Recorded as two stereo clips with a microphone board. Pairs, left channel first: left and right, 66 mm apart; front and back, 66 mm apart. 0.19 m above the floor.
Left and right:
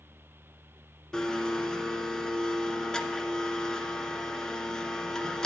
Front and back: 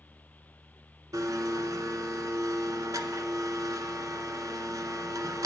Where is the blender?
170° left, 0.6 m.